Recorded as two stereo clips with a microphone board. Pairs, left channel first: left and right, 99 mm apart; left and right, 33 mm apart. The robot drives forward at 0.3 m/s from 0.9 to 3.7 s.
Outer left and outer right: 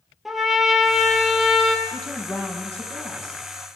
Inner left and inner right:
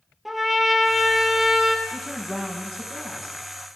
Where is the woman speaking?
15° left (ahead or behind), 3 m.